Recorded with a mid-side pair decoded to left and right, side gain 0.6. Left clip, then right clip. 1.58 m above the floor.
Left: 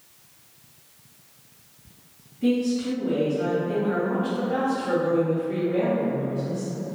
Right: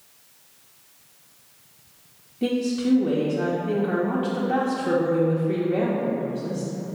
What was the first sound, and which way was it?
A woman speaking, 70° right.